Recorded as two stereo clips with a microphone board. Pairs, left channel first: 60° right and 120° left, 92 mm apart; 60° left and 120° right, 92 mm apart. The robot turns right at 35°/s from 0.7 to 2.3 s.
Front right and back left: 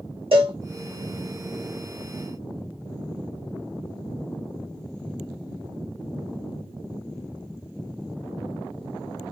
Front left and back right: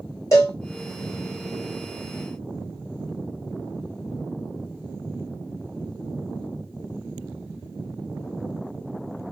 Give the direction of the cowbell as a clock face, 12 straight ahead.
8 o'clock.